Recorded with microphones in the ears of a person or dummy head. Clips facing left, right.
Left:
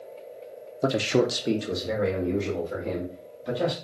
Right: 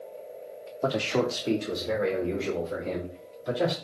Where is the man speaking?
20° left (ahead or behind), 0.5 m; by 3.7 s 5° left (ahead or behind), 2.5 m.